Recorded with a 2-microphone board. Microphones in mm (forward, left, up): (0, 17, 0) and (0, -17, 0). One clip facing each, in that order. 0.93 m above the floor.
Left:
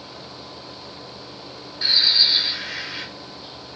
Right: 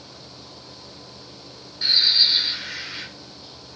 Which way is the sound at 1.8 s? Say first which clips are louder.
Left 1 dB; 15° left (ahead or behind).